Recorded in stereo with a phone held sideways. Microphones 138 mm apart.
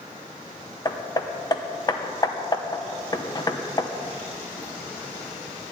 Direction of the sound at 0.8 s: 30° left (ahead or behind).